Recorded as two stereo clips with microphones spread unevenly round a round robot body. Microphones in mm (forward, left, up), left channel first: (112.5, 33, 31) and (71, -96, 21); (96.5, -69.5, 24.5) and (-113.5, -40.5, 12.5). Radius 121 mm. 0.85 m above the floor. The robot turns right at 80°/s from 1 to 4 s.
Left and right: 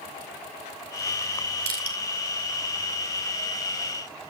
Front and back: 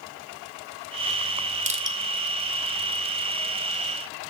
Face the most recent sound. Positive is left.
turn(degrees=55)